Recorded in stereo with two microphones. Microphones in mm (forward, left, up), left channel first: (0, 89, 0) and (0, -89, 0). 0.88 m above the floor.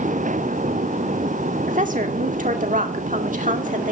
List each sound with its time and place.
1.7 s a woman speaking: 50° right (ahead or behind), 2.0 m